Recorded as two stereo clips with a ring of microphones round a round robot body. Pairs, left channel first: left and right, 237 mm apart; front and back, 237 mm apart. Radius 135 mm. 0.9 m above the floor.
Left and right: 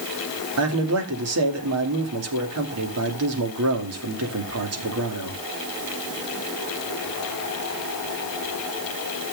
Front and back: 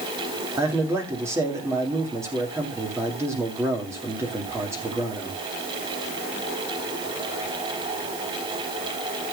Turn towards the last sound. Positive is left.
turn(degrees=-100)